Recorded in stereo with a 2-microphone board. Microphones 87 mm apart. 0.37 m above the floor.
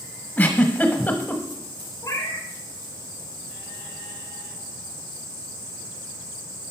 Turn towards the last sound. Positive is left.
turn(degrees=40)  # may be behind; listen again after turning